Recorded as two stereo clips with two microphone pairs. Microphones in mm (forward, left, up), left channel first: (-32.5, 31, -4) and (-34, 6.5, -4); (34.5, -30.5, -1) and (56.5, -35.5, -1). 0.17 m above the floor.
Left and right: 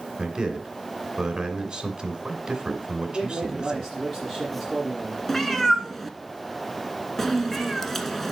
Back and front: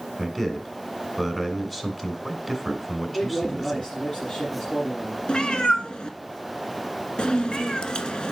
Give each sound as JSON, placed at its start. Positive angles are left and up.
{"t": 0.2, "sound": "a man speaking", "azimuth_deg": -140, "distance_m": 1.9}
{"t": 3.0, "sound": "a man speaking", "azimuth_deg": 170, "distance_m": 5.5}
{"t": 5.3, "sound": "a cat meowing", "azimuth_deg": 165, "distance_m": 0.9}